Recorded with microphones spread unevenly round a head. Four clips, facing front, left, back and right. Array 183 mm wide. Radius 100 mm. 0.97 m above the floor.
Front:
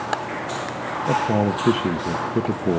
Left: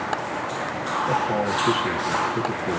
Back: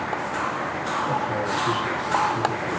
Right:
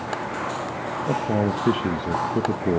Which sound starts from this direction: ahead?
A man speaking, at 1.1 s.